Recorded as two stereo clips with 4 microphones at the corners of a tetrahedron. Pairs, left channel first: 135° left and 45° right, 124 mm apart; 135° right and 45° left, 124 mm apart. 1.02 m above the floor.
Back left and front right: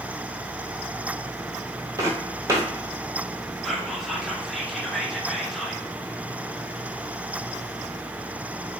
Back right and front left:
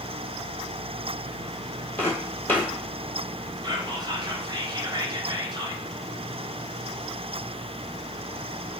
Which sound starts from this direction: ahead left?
Whispering, at 3.6 s.